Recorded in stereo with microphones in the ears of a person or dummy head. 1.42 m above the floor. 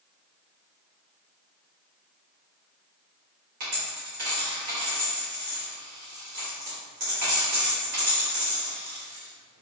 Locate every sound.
3.6 s a dropped coin: 50° right (ahead or behind), 2.0 m